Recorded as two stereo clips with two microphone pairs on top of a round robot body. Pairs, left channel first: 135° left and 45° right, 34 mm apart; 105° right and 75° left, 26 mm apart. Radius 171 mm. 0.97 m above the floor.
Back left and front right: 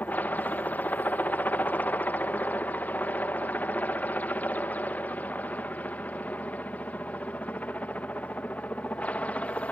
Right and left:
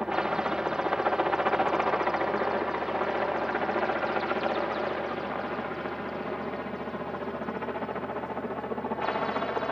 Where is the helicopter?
130° left; by 9.7 s straight behind.